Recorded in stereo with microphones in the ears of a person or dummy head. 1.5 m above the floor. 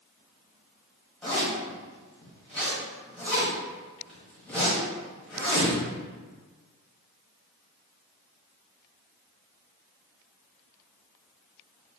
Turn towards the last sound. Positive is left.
turn(degrees=5)  # may be behind; listen again after turning